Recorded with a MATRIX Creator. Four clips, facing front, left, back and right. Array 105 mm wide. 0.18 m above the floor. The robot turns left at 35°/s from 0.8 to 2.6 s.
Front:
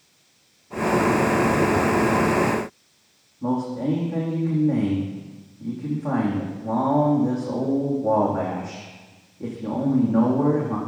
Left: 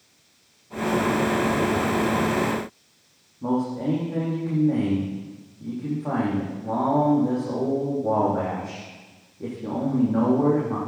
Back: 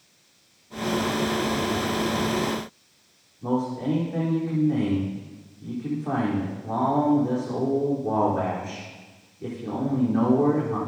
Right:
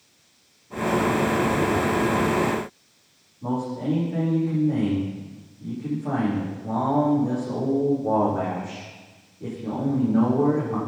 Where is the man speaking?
35° left, 8.5 m.